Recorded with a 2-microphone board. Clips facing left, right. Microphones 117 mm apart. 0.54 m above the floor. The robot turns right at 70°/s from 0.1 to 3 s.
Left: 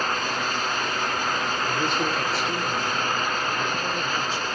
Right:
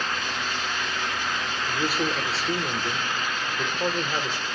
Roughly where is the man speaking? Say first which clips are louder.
Right 1 dB; behind.